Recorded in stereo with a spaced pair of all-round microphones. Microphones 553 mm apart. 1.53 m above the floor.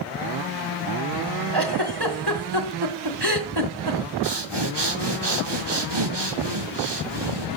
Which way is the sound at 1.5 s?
40° right (ahead or behind).